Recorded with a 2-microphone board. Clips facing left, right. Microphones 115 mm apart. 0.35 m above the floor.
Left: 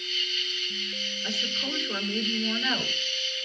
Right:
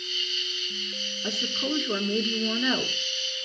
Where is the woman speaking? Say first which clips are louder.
Right 5 dB; 65° right (ahead or behind), 3.5 m.